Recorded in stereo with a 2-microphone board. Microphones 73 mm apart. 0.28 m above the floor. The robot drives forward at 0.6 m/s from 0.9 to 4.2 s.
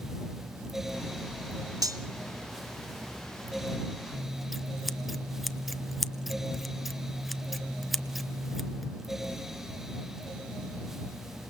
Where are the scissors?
Centre (ahead or behind), 0.6 m.